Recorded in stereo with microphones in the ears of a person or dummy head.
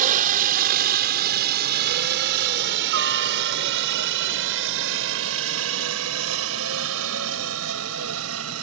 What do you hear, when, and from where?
0.0 s a helicopter: 50° right (ahead or behind); by 8.6 s 80° right